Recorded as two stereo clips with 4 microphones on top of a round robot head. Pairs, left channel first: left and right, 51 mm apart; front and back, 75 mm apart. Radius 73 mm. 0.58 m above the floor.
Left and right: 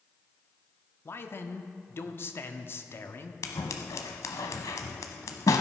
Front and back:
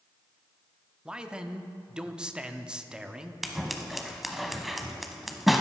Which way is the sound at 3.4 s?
90° left.